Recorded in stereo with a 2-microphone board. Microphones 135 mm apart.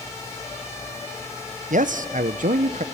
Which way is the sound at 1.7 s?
75° right (ahead or behind).